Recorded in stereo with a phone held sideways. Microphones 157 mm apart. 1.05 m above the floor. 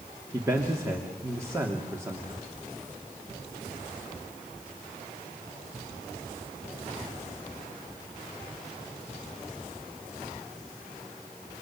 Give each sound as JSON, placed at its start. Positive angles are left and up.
{"t": 0.3, "sound": "a man speaking", "side_deg": -20, "distance_m": 3.0}